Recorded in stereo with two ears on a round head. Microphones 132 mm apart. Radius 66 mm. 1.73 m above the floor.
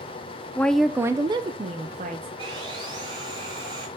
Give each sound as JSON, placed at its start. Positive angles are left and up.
{"t": 0.6, "sound": "a woman speaking", "side_deg": 15, "distance_m": 0.6}
{"t": 2.4, "sound": "sawing", "side_deg": -30, "distance_m": 5.0}